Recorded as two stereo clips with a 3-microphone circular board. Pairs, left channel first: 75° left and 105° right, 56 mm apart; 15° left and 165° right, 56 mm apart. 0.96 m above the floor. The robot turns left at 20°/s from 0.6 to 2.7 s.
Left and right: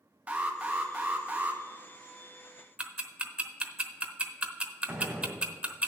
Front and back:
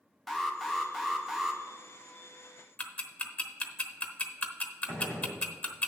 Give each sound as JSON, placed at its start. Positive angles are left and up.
{"t": 0.3, "sound": "an alarm", "azimuth_deg": -70, "distance_m": 1.0}
{"t": 2.8, "sound": "ticking", "azimuth_deg": -40, "distance_m": 0.9}
{"t": 4.9, "sound": "a gunshot", "azimuth_deg": -35, "distance_m": 2.5}